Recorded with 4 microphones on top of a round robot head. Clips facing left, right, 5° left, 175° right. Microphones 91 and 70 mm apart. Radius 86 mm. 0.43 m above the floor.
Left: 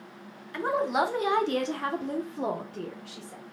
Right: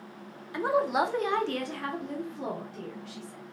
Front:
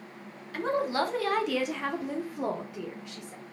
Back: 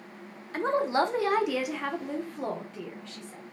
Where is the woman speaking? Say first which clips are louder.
Even, back 2 dB; 155° right, 1.0 m; by 3.4 s 70° left, 1.7 m.